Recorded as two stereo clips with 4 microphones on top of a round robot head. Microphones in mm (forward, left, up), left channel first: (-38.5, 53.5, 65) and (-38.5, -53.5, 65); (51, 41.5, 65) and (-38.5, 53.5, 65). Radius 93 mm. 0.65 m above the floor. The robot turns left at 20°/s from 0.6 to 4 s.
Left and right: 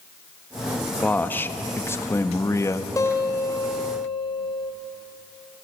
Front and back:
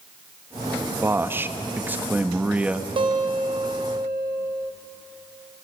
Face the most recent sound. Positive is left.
turn(degrees=130)